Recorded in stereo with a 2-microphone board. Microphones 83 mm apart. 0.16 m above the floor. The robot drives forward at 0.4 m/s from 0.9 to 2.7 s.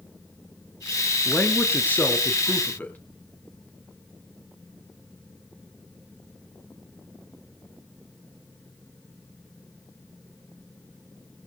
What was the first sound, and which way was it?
A man speaking, 25° left (ahead or behind).